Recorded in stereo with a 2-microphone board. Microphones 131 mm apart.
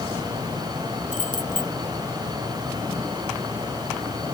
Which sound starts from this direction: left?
Keys jangling, at 1.1 s.